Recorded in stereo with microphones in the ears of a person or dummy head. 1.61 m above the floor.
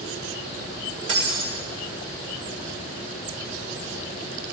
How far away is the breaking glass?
About 2.5 m.